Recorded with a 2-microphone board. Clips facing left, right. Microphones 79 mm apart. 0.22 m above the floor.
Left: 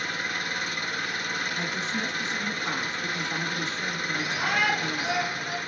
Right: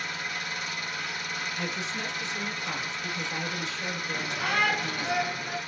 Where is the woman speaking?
45° left (ahead or behind), 3 m.